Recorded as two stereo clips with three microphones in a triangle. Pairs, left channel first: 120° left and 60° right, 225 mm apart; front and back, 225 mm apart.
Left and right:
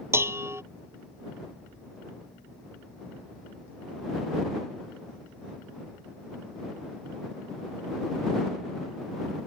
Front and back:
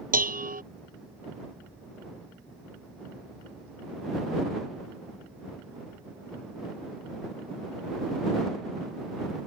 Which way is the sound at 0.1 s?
140° right.